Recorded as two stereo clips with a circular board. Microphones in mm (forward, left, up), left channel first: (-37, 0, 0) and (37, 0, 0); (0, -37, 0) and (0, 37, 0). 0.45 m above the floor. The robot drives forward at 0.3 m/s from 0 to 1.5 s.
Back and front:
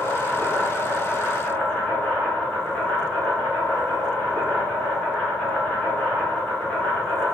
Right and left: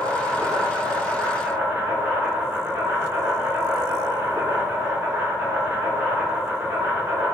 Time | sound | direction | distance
0.0 | an insect | 75° left | 1.5 m